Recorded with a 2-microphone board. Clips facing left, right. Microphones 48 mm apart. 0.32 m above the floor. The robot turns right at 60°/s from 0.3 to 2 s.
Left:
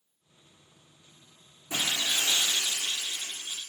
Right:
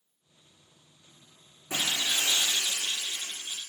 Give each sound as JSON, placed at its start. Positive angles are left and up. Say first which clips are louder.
{"t": 1.7, "sound": "breaking glass", "louder": "even", "side_deg": -45, "distance_m": 4.0}